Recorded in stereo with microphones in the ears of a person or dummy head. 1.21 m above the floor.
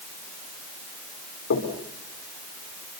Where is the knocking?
60° left (ahead or behind), 4 m.